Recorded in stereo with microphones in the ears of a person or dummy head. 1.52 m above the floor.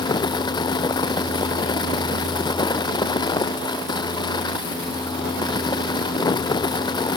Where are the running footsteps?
I don't hear running footsteps.